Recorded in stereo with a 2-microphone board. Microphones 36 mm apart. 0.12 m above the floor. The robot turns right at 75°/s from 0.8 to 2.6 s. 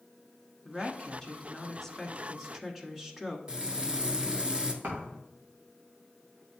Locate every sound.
0.7 s a woman speaking: 15° left (ahead or behind), 1.1 m; by 3.4 s 5° right (ahead or behind), 1.1 m
3.5 s frying: 25° right (ahead or behind), 0.9 m
4.8 s a thud: 60° right (ahead or behind), 3.5 m